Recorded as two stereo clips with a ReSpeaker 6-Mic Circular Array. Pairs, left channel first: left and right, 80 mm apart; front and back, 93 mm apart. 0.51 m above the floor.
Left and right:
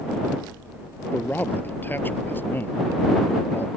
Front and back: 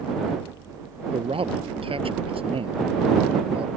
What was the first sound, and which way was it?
A man speaking, 160° left.